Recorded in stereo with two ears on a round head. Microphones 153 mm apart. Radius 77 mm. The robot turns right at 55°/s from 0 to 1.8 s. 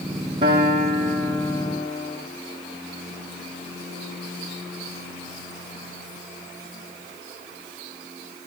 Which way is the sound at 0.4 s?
30° right.